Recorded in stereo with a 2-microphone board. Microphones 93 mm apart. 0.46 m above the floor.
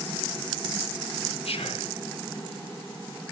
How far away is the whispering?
About 4 m.